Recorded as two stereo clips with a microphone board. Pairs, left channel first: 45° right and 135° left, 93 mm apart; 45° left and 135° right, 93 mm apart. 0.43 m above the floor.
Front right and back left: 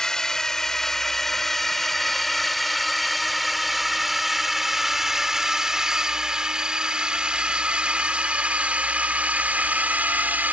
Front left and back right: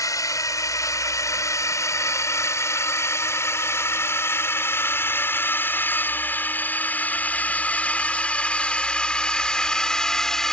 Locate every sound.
0.0 s a drone: 35° left; by 10.5 s 115° left